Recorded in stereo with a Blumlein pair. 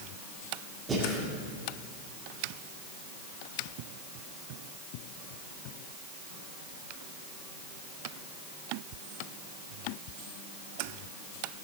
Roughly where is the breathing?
Ahead.